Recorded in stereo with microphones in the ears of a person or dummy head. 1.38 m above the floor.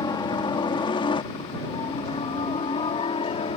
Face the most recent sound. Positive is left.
turn(degrees=30)  # may be behind; listen again after turning